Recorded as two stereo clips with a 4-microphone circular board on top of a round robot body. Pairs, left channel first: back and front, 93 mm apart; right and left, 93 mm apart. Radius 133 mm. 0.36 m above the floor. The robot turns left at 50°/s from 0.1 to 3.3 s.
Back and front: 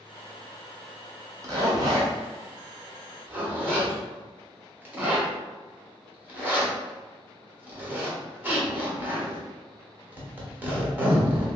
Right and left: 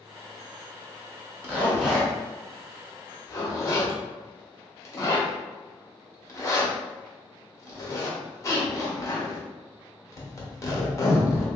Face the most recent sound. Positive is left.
turn(degrees=-60)